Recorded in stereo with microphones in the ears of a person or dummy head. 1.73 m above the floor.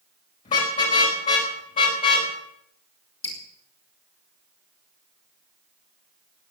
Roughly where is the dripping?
Left.